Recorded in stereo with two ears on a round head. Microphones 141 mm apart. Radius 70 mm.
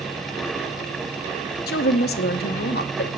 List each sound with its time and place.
1.7 s a woman speaking: 70° left (ahead or behind), 1.0 m